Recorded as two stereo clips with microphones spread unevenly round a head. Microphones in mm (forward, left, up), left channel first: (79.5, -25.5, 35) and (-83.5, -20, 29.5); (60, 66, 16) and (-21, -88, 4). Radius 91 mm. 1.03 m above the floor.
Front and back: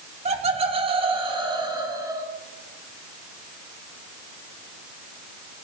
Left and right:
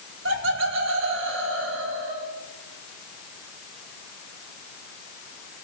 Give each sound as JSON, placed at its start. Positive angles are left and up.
{"t": 0.2, "sound": "laughter", "azimuth_deg": -135, "distance_m": 3.0}